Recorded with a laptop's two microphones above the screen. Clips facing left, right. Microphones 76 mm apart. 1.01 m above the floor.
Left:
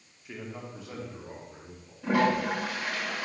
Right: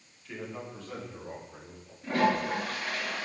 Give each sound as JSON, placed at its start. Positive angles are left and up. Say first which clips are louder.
{"t": 0.2, "sound": "a man speaking", "louder": "right 1 dB", "side_deg": 15, "distance_m": 3.0}
{"t": 2.0, "sound": "a toilet flushing", "louder": "left 2 dB", "side_deg": 75, "distance_m": 8.5}